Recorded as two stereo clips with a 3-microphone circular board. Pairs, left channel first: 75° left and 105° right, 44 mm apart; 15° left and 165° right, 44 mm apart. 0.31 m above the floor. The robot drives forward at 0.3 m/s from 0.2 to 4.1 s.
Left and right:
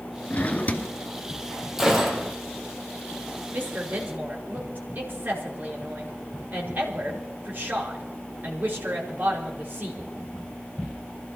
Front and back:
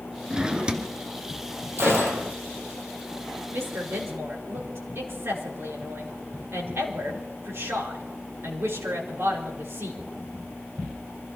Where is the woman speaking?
145° right, 4.5 m.